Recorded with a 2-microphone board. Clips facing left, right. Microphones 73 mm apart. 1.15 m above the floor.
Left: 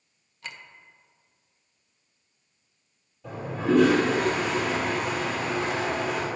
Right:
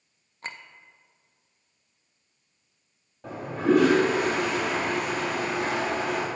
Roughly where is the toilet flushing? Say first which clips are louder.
Right 2 dB; right.